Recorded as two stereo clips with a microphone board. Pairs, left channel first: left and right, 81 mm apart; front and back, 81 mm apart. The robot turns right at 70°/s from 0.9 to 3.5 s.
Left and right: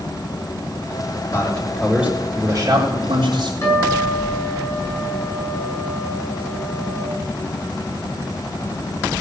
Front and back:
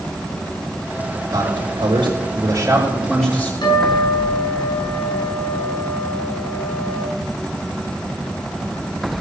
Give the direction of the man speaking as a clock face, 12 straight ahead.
7 o'clock.